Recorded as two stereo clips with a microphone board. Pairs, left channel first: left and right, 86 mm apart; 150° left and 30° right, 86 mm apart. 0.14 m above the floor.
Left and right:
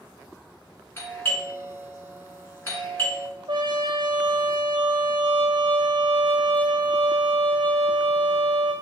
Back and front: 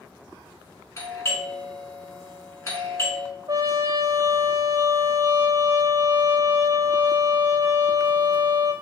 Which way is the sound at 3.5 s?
75° right.